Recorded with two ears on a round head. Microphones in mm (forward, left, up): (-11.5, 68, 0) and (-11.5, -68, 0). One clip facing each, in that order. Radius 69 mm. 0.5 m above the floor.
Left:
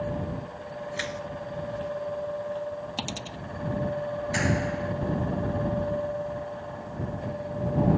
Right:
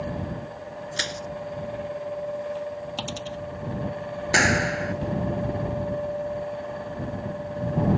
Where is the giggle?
No giggle in this recording.